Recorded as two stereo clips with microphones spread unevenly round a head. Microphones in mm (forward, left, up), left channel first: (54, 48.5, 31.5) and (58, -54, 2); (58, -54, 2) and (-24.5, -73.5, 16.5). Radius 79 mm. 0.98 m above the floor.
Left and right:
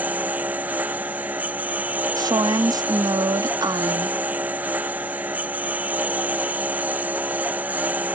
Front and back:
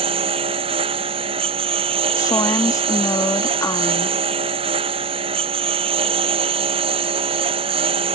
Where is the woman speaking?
40° right.